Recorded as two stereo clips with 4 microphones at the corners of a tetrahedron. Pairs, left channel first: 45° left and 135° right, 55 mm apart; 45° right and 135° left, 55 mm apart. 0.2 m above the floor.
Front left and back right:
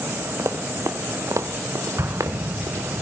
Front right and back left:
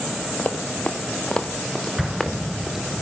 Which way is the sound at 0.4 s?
100° right.